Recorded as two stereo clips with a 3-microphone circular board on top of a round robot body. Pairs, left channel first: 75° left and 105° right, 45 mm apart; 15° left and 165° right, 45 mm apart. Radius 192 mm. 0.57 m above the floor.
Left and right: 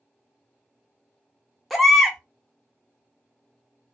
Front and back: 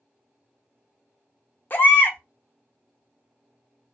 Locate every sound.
1.7 s a baby crying: 15° right, 1.1 m